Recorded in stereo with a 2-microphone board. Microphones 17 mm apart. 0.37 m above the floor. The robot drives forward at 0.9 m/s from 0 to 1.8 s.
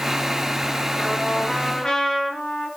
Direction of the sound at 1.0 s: 60° left (ahead or behind).